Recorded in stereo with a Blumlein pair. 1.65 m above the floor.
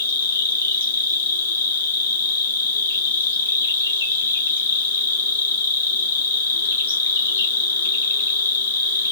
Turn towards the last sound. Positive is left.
turn(degrees=70)